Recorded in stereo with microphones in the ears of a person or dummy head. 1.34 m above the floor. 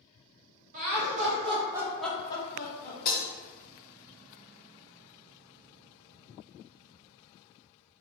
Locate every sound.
0.7 s laughter: 45° right (ahead or behind), 1.0 m; by 3.0 s 50° left (ahead or behind), 0.7 m
3.0 s breaking glass: 50° left (ahead or behind), 0.8 m